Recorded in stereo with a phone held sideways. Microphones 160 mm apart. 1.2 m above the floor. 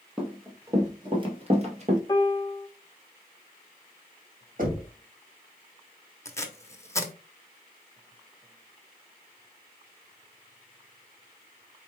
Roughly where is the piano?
Left.